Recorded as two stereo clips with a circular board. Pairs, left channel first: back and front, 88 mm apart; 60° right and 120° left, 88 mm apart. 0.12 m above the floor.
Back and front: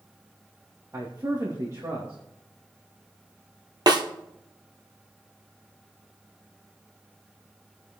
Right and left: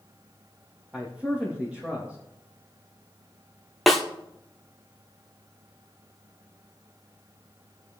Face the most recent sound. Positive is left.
turn(degrees=30)